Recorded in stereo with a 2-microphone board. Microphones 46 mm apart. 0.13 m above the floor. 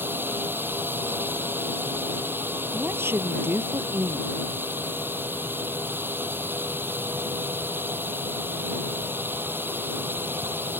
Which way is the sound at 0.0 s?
50° right (ahead or behind).